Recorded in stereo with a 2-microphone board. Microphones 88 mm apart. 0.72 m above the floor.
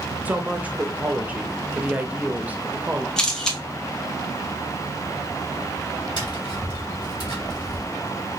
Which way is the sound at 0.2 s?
20° right (ahead or behind).